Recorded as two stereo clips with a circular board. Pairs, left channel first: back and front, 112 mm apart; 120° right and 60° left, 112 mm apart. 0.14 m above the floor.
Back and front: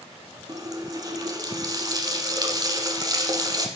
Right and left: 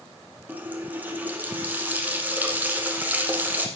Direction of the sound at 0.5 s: Straight ahead.